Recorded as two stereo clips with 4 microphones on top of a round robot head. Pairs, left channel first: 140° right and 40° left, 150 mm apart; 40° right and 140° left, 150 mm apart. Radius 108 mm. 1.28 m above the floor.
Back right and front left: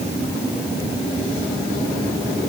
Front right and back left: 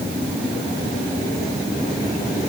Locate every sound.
Only background noise.